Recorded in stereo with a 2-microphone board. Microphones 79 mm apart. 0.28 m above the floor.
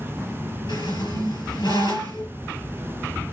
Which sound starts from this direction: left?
A squeak, at 0.7 s.